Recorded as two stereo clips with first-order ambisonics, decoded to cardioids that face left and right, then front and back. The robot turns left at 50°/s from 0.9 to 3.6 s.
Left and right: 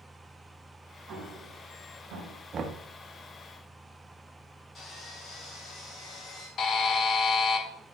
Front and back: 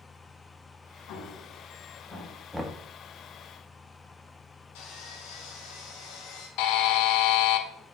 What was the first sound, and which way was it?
An explosion, 30° right.